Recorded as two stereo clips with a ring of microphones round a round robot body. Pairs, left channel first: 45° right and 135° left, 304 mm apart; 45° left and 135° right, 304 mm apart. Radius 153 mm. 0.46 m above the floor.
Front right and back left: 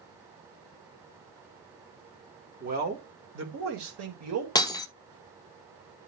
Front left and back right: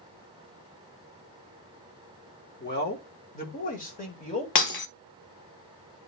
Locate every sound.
2.6 s a man speaking: 85° left, 1.7 m; by 4.5 s 110° left, 2.5 m
4.5 s breaking glass: 30° left, 0.7 m